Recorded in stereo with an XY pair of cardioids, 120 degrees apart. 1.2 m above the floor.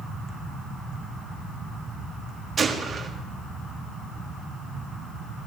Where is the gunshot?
30° right, 1.4 m.